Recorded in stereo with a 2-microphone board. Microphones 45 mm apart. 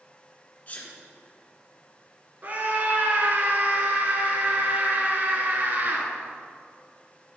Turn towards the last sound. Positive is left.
turn(degrees=-45)  # may be behind; listen again after turning